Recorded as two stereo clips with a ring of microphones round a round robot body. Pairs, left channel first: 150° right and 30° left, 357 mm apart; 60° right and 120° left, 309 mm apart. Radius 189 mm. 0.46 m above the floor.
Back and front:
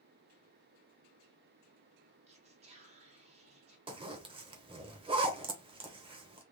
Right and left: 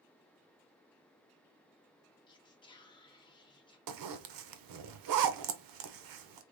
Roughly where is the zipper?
Left.